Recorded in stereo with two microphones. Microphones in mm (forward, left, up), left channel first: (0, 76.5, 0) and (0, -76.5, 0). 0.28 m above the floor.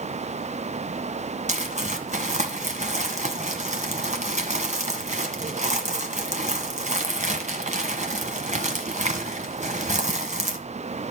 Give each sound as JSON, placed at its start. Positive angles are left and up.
{"t": 1.5, "sound": "crumpling", "side_deg": -50, "distance_m": 1.7}